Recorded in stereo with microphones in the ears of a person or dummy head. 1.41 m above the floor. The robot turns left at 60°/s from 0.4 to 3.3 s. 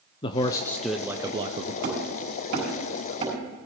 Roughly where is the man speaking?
Ahead left.